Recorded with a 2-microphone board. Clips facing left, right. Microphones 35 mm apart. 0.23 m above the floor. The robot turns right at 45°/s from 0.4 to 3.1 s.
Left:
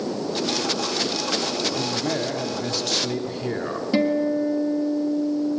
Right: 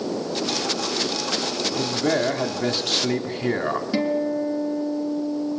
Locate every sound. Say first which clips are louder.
1.8 s a man speaking: right 3 dB; 170° right, 1.5 m; by 3.8 s 110° right, 1.5 m
3.9 s a guitar: left 5 dB; 5° left (ahead or behind), 3 m